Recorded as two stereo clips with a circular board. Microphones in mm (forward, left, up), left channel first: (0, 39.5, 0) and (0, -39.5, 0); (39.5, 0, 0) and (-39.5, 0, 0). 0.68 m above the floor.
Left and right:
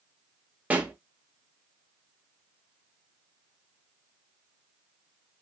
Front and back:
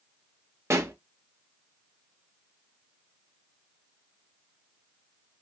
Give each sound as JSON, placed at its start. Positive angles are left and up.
{"t": 0.7, "sound": "a pop", "azimuth_deg": -150, "distance_m": 0.6}